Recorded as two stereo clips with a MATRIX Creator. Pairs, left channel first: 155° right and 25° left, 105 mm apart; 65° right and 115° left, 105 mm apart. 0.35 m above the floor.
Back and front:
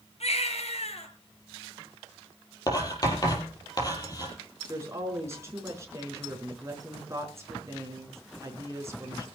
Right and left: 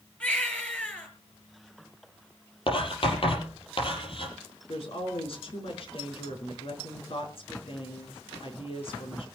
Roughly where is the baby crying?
Behind right.